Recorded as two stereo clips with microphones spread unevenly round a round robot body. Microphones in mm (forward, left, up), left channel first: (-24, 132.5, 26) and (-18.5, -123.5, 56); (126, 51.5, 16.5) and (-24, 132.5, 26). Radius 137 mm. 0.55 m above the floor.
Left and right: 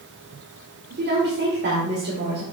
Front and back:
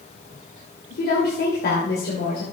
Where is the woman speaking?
40° right, 2 m.